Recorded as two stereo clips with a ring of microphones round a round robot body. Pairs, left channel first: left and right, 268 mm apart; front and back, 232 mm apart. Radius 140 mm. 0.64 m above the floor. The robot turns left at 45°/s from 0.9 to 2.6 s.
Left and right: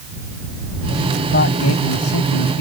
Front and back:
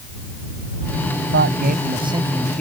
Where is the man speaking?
150° left; by 2.6 s 85° left.